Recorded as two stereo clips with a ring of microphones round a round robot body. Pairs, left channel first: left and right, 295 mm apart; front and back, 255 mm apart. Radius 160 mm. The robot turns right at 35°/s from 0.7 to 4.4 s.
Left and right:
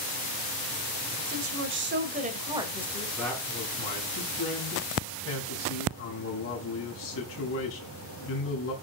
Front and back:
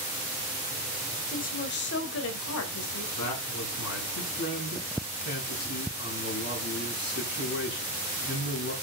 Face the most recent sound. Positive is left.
turn(degrees=45)